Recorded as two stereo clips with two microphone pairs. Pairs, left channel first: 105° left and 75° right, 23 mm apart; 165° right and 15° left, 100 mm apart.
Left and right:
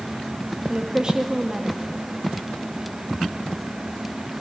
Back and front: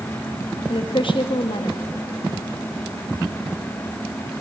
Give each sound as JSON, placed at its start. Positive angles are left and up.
{"t": 0.7, "sound": "a woman speaking", "azimuth_deg": -135, "distance_m": 1.8}